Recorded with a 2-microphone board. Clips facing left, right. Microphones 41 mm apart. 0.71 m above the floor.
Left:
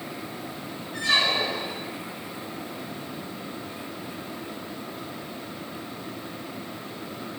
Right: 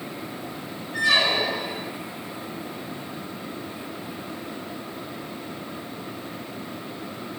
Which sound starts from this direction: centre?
A squeak, at 0.9 s.